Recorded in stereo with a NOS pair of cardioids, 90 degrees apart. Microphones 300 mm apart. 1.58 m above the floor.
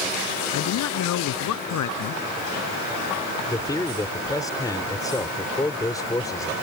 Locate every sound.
0.5 s a man speaking: 70° left
3.5 s a man speaking: 10° left